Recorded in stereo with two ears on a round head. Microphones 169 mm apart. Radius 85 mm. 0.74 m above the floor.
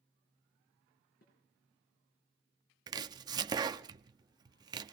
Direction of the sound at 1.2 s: 50° left (ahead or behind).